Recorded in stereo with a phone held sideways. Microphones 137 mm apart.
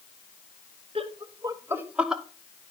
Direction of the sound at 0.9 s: 45° right (ahead or behind).